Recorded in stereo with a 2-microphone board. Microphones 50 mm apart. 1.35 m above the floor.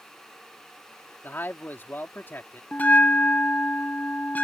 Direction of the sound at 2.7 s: 30° left (ahead or behind).